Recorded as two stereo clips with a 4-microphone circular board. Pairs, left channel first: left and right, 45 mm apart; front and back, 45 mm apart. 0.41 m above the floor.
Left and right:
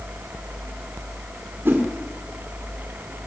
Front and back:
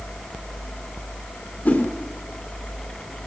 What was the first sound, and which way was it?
A whoosh, 45° right.